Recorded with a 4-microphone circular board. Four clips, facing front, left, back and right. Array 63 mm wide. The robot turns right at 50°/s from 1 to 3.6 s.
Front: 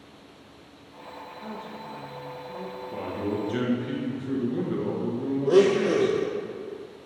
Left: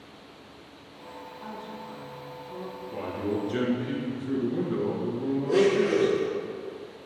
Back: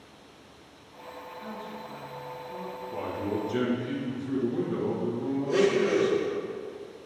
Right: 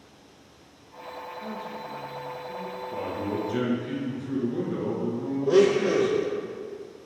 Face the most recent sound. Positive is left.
turn(degrees=-30)